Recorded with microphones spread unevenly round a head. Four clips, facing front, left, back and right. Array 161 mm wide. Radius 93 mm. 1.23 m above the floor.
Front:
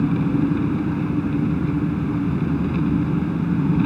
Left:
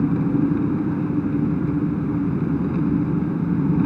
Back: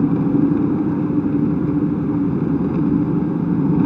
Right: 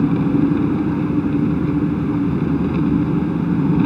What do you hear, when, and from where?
0.0 s an engine running: 150° right